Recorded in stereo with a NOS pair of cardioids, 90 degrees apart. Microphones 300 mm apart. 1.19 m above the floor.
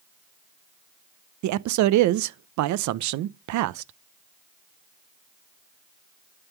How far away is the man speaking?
About 0.6 m.